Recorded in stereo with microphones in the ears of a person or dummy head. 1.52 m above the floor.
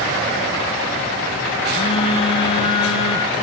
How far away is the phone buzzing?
About 0.6 m.